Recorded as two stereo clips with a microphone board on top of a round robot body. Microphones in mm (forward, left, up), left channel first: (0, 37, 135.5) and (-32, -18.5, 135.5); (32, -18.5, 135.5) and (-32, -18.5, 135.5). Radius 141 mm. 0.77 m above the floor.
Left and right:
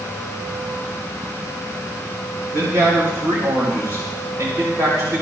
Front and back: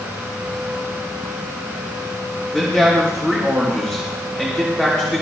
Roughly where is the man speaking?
Right.